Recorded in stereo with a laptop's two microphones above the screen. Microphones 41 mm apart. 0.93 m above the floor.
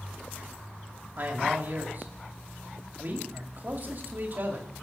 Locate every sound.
1.2 s a man speaking: 45° right (ahead or behind), 2 m